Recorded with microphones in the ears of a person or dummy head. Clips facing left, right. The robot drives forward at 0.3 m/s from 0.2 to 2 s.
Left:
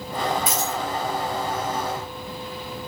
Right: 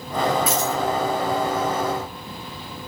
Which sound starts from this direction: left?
A dropped coin, at 0.5 s.